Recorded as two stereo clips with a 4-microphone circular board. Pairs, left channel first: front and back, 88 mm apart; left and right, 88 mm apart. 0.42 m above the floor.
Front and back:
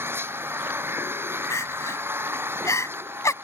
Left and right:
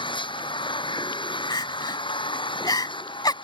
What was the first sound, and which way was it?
An engine running, 115° left.